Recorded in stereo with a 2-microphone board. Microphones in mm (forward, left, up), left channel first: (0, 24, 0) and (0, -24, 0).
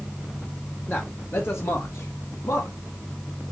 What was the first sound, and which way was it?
A man speaking, 40° left (ahead or behind).